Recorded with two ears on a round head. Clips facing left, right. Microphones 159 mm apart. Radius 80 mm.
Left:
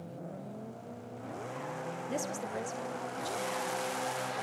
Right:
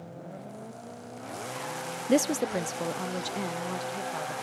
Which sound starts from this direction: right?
A woman speaking, at 2.1 s.